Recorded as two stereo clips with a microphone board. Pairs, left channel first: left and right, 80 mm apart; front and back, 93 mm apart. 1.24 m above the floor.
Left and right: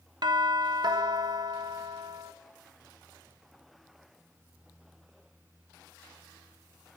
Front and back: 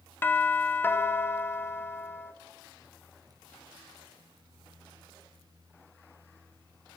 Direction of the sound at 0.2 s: 65° right.